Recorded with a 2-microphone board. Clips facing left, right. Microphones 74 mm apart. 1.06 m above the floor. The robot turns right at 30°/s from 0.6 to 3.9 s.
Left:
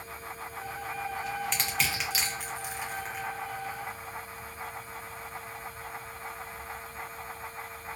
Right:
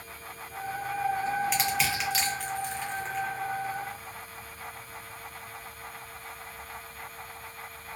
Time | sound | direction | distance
1.5 | crushing | 5° right (ahead or behind) | 0.7 m